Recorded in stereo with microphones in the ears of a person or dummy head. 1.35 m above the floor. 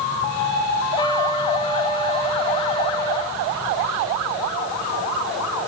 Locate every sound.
1.0 s a trumpet: 25° left (ahead or behind), 6.5 m